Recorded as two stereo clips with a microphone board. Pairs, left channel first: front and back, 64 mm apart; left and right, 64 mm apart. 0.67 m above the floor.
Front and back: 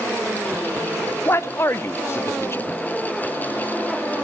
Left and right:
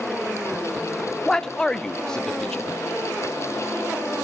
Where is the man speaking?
15° left, 0.8 m.